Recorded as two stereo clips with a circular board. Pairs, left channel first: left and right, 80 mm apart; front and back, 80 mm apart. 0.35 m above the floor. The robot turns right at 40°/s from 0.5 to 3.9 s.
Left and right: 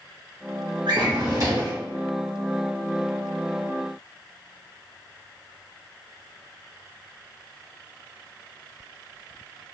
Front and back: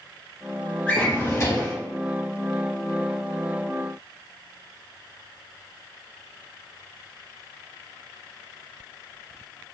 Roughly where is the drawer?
Right.